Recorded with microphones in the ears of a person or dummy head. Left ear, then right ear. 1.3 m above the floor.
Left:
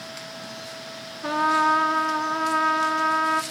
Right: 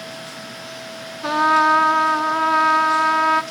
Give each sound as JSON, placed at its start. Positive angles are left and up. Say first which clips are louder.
{"t": 1.2, "sound": "a trumpet", "louder": "right 5 dB", "side_deg": -15, "distance_m": 0.6}